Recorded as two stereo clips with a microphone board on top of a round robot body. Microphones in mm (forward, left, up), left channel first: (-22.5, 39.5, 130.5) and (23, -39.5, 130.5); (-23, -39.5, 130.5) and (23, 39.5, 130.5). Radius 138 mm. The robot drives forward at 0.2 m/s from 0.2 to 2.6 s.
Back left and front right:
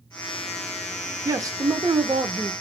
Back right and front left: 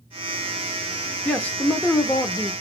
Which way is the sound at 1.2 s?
50° right.